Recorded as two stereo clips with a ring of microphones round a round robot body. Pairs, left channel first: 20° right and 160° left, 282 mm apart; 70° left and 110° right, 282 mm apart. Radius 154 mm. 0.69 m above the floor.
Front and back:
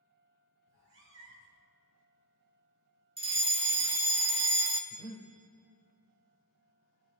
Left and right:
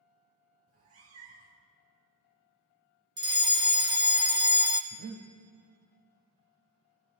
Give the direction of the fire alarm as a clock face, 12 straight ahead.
5 o'clock.